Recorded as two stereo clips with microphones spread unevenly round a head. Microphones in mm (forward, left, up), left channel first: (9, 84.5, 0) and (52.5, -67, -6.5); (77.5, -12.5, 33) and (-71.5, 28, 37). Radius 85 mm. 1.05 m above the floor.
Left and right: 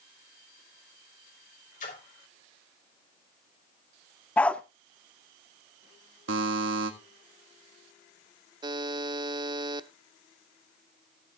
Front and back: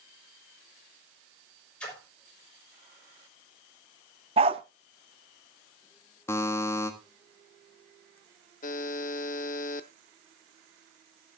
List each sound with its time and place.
1.8 s a splash: 70° left, 6 m
4.4 s a dog barking: straight behind, 0.6 m
6.3 s a buzzer: 90° right, 1.7 m
8.6 s a buzzer: 20° right, 0.7 m